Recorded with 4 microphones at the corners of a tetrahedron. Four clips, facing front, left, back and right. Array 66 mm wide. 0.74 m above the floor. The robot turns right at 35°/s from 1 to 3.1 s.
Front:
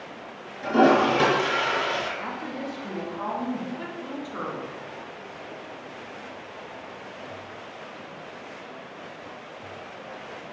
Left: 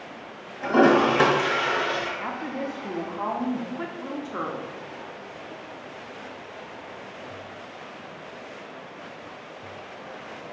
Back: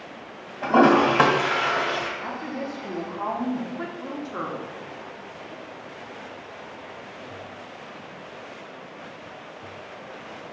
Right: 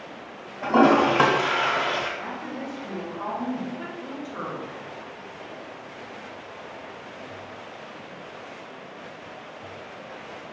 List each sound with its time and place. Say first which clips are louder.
0.6 s a toilet flushing: even, back 2 dB; 155° right, 1.5 m; by 2.1 s 115° right, 1.5 m
2.2 s a woman speaking: left 3 dB, back 1 dB; 80° left, 0.9 m; by 4.8 s 110° left, 0.9 m